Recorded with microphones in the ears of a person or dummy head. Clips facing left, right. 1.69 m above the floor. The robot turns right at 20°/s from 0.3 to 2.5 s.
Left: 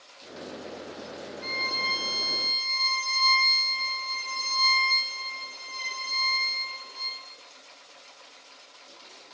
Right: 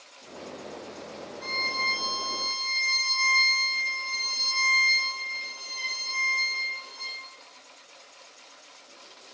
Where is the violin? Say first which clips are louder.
Even; 65° right (ahead or behind), 4.5 m; by 7.2 s 45° right (ahead or behind), 4.5 m.